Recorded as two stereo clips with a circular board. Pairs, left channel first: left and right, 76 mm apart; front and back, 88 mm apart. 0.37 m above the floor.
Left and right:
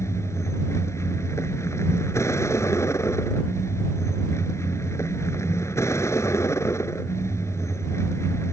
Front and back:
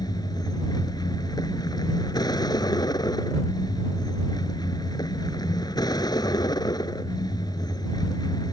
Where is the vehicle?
40° left.